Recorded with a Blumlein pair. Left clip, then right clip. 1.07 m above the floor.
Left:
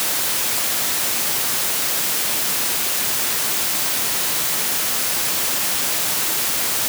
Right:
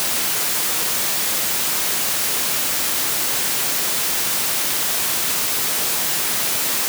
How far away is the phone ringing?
No phone ringing in this recording.